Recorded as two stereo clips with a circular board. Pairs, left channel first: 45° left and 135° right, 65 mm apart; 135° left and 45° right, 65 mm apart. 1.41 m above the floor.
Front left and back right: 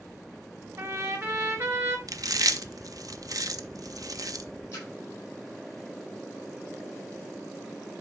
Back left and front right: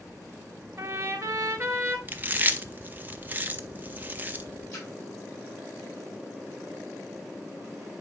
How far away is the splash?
About 5 m.